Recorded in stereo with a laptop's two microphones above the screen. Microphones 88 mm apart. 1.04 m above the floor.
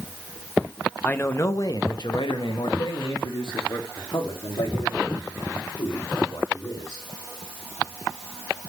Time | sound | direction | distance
1.0 | a man speaking | 20° left (ahead or behind) | 0.8 m